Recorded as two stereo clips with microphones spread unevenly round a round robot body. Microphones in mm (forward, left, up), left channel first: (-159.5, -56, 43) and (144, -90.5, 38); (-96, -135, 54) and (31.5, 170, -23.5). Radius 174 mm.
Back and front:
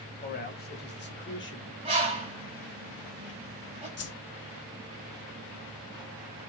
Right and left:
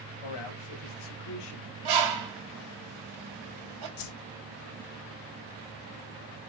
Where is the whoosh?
145° right, 1.2 m.